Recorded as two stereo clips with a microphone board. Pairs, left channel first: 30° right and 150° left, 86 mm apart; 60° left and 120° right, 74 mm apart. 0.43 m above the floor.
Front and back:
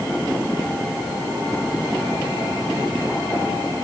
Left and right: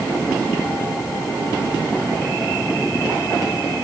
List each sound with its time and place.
Only background noise.